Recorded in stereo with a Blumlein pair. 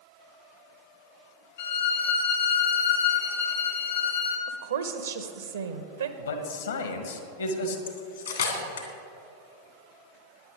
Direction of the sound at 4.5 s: 70° right.